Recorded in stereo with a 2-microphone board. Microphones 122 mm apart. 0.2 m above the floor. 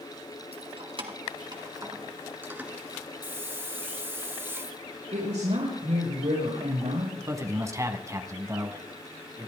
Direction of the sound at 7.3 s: 25° right (ahead or behind).